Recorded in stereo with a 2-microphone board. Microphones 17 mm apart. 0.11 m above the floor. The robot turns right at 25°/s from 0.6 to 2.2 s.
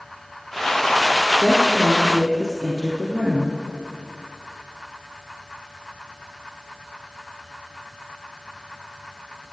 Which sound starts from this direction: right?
A woman speaking, at 1.4 s.